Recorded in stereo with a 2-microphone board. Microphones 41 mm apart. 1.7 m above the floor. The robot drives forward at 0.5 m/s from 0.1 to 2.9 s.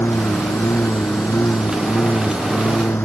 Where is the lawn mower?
85° left.